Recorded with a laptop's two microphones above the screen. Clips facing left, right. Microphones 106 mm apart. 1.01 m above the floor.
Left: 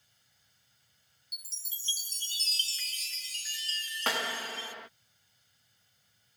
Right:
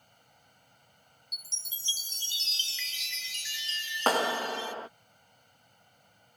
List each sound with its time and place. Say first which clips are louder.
0.0 s a machine running: right 13 dB; 65° right (ahead or behind)
1.3 s a chime: right 3 dB; 40° left (ahead or behind)
4.1 s a clap: right 8 dB; 40° right (ahead or behind)